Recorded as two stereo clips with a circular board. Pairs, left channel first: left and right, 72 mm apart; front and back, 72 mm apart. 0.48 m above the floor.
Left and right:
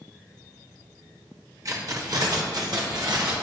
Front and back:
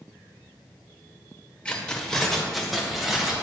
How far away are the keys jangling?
About 1.2 m.